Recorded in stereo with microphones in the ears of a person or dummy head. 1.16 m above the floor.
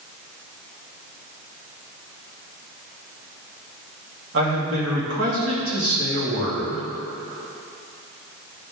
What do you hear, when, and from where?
4.3 s a man speaking: 60° right (ahead or behind), 2 m